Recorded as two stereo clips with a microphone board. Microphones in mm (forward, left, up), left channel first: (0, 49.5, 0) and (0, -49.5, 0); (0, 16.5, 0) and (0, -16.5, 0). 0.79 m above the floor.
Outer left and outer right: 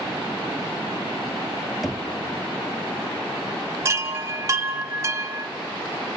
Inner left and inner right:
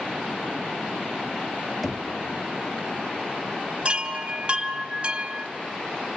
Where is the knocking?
Centre (ahead or behind), 0.9 m.